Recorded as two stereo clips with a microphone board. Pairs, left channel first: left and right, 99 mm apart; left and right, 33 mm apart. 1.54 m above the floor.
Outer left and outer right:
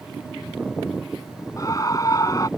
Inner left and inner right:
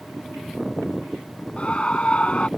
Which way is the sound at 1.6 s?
35° left (ahead or behind).